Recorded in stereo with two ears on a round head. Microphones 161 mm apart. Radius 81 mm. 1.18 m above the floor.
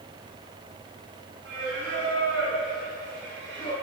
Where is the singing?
70° right (ahead or behind), 6.5 m.